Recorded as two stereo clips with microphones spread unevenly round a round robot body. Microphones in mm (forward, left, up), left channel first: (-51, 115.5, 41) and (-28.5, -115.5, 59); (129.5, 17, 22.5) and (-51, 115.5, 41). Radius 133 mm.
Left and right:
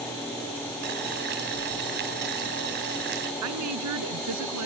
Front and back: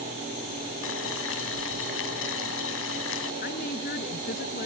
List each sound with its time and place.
0.8 s boiling: 35° right
3.4 s a woman speaking: 85° right